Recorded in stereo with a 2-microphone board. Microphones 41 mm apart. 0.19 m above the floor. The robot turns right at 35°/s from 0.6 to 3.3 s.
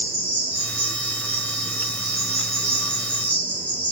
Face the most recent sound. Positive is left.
turn(degrees=40)